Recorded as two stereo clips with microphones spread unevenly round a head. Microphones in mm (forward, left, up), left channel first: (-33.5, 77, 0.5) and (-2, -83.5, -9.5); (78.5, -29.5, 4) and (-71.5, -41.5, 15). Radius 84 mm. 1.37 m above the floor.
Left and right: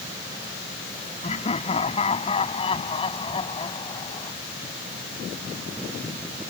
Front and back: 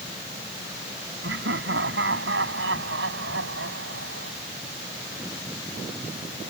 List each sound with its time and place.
1.2 s laughter: 155° left; by 4.3 s 165° left